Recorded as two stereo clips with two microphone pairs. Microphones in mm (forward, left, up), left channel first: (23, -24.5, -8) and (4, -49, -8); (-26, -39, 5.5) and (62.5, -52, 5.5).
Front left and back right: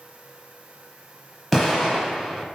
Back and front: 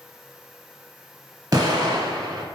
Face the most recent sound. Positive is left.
turn(degrees=-45)